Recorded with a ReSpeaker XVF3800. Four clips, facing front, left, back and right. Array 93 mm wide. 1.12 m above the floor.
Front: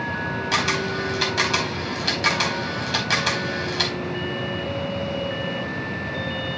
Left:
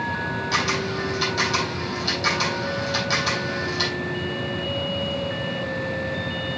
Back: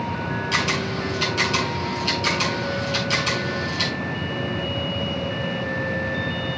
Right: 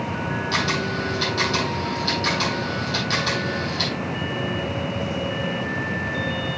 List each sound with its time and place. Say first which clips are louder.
0.5 s a camera shutter: even, front 1 dB; 5° left, 4.5 m